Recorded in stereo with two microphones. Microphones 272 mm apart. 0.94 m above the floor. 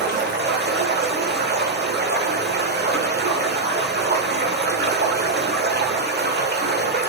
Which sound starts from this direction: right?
Running water, at 0.0 s.